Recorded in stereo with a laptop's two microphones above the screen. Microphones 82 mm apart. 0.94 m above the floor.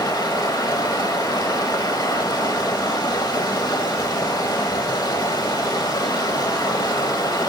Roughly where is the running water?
Left.